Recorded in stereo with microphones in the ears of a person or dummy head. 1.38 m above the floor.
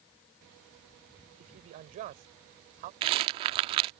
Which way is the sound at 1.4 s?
45° right (ahead or behind).